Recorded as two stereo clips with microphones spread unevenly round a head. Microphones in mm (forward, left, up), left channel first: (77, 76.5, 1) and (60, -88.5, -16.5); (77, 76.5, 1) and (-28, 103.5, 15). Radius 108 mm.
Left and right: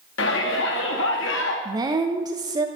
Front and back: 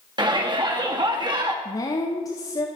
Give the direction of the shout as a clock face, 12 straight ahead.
8 o'clock.